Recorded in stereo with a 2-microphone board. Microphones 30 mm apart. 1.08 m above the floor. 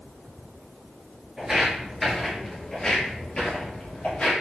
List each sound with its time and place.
1.4 s footsteps: 20° right (ahead or behind), 1.1 m; by 4.3 s 45° left (ahead or behind), 1.7 m